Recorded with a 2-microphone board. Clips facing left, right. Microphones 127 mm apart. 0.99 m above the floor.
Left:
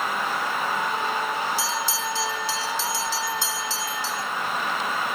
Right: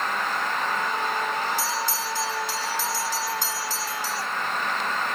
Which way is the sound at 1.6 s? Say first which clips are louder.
Even; 50° right (ahead or behind).